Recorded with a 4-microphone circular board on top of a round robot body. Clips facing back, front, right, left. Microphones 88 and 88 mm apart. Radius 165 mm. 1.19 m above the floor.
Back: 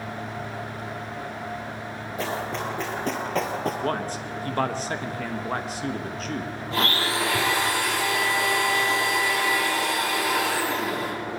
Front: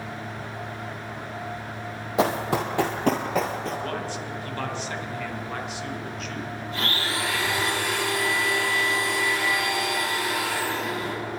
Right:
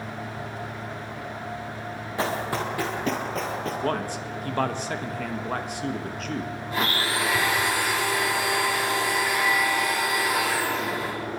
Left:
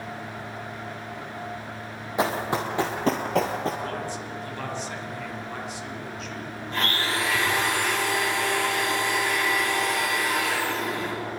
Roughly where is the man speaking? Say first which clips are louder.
Back 3 dB, right 4 dB; behind right.